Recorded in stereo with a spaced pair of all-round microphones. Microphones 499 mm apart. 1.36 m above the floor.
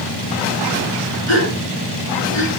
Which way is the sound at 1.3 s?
80° left.